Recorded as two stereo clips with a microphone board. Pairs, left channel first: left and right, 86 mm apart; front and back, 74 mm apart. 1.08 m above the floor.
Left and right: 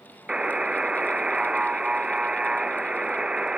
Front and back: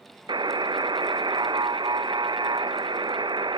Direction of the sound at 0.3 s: 170° right.